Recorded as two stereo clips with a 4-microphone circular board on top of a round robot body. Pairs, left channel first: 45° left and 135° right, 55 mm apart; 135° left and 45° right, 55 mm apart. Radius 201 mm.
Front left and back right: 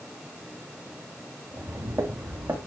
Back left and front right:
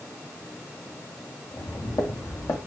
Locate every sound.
1.5 s footsteps: 165° left, 3 m